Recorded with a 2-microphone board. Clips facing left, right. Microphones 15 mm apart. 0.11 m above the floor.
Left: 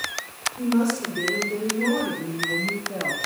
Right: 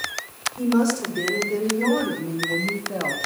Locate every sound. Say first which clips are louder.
0.6 s a woman speaking: right 2 dB; 35° right (ahead or behind), 6 m; by 3.2 s 25° right (ahead or behind), 5 m